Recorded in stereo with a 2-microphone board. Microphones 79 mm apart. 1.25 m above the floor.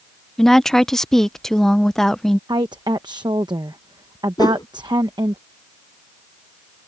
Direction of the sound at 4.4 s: 60° left (ahead or behind).